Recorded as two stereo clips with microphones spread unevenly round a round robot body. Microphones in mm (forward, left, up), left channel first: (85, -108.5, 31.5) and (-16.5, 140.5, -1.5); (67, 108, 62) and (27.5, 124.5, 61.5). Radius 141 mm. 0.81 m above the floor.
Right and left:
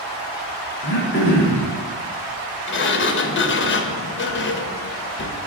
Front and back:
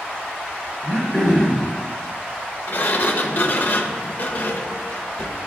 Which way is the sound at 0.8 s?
115° right.